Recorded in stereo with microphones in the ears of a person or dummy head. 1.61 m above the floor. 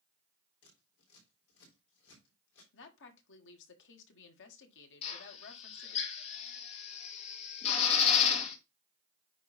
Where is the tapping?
No tapping in this recording.